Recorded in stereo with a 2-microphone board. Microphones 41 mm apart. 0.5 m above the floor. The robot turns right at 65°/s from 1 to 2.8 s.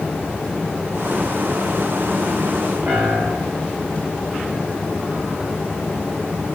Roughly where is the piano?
Right.